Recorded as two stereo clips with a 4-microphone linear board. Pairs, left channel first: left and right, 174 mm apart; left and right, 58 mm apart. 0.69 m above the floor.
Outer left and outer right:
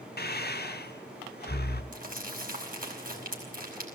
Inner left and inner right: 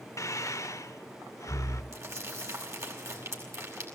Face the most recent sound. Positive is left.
turn(degrees=-55)  # may be behind; listen again after turning